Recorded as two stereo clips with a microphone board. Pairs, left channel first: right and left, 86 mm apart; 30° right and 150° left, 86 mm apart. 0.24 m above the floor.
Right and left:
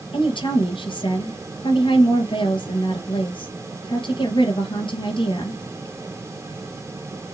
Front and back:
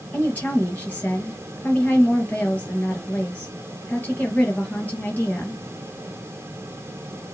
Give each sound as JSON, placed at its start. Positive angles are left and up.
{"t": 0.1, "sound": "a woman speaking", "azimuth_deg": -100, "distance_m": 3.5}